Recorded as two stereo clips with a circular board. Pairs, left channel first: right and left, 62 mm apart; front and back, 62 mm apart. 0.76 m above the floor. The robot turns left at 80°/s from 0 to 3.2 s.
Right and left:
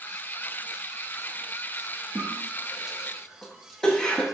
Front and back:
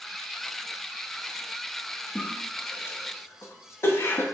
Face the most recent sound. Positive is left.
turn(degrees=-15)